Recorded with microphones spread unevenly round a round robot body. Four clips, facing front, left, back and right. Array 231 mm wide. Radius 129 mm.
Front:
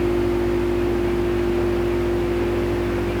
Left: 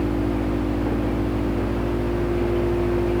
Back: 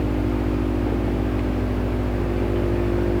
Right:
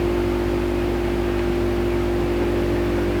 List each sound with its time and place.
Only background noise.